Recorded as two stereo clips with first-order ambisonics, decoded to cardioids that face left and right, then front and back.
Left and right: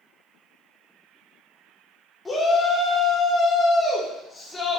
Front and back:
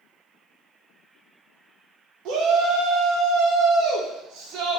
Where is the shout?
165° left, 1.0 m.